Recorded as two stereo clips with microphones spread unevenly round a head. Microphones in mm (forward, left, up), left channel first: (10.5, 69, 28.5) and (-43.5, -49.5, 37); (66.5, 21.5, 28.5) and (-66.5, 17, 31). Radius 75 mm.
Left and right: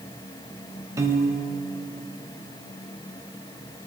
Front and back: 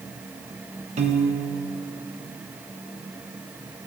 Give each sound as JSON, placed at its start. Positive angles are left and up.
{"t": 1.0, "sound": "a piano", "azimuth_deg": 180, "distance_m": 1.1}